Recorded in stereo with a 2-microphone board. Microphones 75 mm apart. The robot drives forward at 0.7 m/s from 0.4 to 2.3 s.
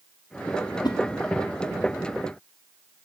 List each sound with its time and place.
0.8 s a whoosh: 70° left (ahead or behind), 0.7 m; by 1.0 s 75° left (ahead or behind), 0.7 m